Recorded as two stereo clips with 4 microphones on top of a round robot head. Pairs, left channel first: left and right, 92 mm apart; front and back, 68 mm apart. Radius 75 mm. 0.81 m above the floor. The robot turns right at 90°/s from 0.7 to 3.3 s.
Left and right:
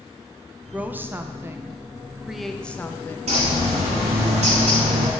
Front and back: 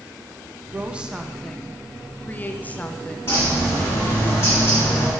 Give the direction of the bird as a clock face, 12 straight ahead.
2 o'clock.